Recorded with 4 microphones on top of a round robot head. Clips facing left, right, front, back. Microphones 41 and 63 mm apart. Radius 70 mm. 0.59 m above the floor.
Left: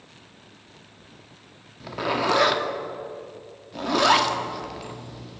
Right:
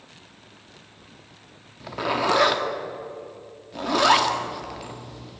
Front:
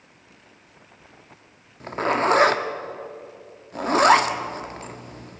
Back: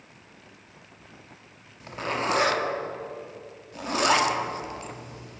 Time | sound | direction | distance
1.8 | a zipper | straight ahead | 1.6 m